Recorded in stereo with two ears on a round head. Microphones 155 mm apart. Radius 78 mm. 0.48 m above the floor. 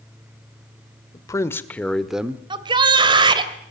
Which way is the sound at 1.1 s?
20° left (ahead or behind).